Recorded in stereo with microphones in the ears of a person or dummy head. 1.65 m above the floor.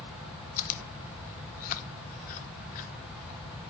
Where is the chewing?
45° left (ahead or behind), 0.6 m.